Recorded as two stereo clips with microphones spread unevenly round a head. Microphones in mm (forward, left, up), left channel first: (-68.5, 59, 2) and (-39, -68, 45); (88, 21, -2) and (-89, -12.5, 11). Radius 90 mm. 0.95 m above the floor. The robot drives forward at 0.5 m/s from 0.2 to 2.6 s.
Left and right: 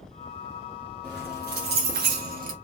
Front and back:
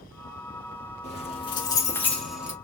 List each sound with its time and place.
1.0 s keys jangling: 45° right, 1.1 m; by 2.5 s 90° right, 0.8 m